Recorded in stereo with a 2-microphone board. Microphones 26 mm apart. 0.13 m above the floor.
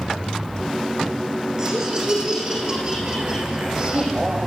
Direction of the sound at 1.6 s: 30° right (ahead or behind).